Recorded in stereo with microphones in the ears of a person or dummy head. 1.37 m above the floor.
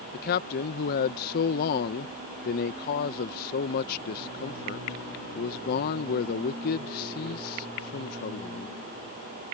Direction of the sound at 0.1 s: 45° left (ahead or behind).